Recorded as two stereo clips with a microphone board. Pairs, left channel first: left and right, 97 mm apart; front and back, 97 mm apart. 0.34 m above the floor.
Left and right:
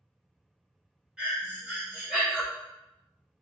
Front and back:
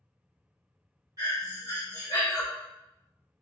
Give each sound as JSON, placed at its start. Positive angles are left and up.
{"t": 1.2, "sound": "breathing", "azimuth_deg": -165, "distance_m": 1.5}